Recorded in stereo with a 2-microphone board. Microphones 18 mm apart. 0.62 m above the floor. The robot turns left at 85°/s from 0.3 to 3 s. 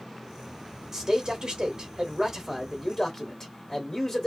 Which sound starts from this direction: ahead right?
A man speaking, at 0.9 s.